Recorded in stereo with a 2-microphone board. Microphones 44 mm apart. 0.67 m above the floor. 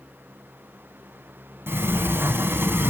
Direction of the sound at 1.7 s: 70° right (ahead or behind).